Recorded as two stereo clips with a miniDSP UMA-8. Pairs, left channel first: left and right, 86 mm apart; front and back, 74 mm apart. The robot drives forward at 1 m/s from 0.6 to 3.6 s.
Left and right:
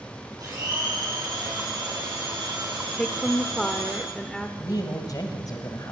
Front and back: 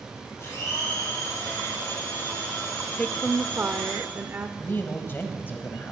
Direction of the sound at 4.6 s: 55° left.